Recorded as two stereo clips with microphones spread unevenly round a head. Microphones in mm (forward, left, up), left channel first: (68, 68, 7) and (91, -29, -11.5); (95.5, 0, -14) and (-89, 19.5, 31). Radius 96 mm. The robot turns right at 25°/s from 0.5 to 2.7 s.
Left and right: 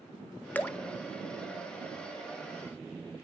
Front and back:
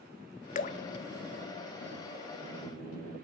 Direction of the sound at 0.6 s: 45° left.